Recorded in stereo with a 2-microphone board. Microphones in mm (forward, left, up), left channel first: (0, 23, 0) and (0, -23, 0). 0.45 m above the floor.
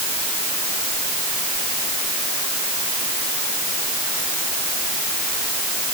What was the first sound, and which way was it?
Only background noise.